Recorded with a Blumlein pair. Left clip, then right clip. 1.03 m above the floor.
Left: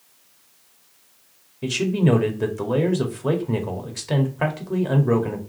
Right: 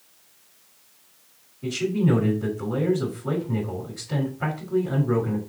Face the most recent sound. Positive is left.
turn(degrees=40)